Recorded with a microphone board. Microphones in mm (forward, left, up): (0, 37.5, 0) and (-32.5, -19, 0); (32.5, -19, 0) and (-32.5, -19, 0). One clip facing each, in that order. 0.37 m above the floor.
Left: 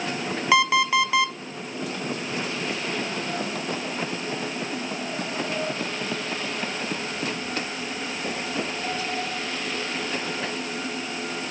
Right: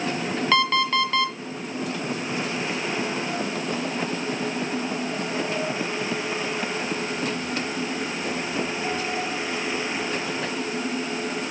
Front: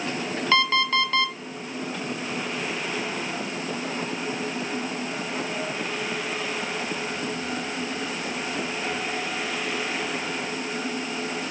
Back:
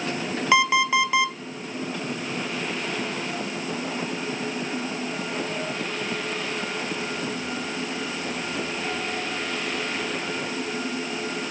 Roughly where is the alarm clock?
Behind left.